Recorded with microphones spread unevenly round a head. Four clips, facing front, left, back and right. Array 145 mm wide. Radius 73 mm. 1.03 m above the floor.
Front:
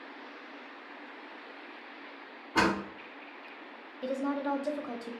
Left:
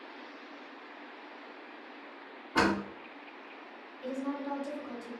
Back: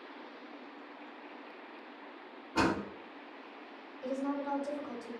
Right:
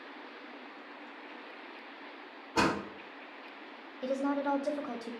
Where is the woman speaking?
50° right, 0.6 m.